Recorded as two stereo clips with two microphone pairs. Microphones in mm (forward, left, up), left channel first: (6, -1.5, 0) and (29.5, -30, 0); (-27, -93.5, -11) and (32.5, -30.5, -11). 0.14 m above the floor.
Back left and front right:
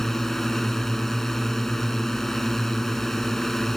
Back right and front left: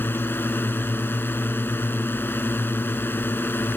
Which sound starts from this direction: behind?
A drone, at 0.0 s.